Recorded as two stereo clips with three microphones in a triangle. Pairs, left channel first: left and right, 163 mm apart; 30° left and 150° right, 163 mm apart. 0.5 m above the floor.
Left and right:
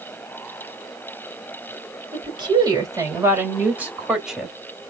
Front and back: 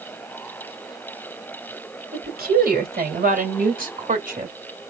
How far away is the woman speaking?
About 2.5 m.